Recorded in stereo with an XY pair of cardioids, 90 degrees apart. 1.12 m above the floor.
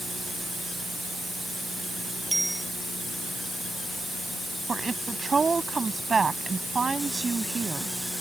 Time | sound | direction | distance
2.3 | a bicycle bell | 10° right | ?
4.7 | a woman speaking | 35° right | ?